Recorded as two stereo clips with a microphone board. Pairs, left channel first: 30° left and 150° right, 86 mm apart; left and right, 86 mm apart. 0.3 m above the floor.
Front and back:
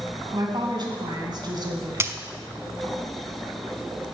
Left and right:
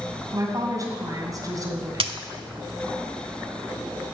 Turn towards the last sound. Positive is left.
turn(degrees=-90)